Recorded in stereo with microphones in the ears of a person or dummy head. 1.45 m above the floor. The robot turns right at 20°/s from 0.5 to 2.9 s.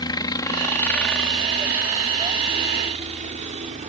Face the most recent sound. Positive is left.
turn(degrees=-40)  # may be behind; listen again after turning